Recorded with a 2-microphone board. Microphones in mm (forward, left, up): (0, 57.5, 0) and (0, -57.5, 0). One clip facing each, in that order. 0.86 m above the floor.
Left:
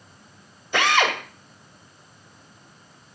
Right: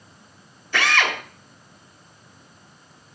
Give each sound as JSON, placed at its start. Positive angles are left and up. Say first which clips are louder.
{"t": 0.7, "sound": "a drill", "louder": "left 2 dB", "side_deg": 20, "distance_m": 2.5}